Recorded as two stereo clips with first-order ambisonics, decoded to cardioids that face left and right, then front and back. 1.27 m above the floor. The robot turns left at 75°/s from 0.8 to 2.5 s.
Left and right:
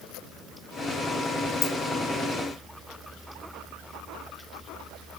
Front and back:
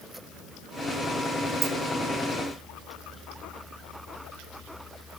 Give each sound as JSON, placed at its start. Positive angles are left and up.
{"t": 1.6, "sound": "a dropped coin", "azimuth_deg": 125, "distance_m": 2.0}